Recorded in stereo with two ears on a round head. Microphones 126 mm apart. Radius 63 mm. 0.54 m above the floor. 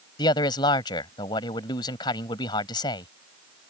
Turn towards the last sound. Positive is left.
turn(degrees=30)  # may be behind; listen again after turning